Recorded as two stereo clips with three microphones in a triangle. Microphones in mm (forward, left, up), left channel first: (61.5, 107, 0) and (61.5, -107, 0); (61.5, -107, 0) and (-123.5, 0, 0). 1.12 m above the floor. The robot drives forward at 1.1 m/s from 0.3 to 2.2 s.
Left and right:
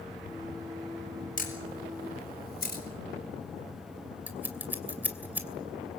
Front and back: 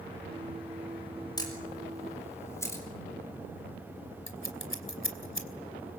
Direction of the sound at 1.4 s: 40° left.